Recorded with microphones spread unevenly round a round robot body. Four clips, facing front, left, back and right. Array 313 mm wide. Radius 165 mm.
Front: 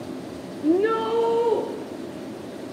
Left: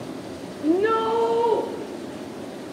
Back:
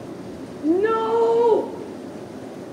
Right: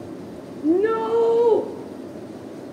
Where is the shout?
75° right, 0.8 m; by 1.6 s 130° right, 1.2 m.